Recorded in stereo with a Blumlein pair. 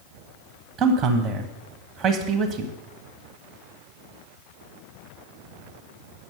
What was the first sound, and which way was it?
A man speaking, 25° right.